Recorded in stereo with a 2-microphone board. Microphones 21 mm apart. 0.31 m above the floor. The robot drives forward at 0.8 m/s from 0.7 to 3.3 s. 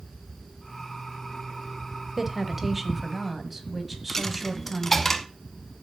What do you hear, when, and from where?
2.2 s a woman speaking: 20° right (ahead or behind), 1.0 m; by 5.1 s 10° right (ahead or behind), 1.6 m
4.1 s a dropped coin: 15° left (ahead or behind), 0.7 m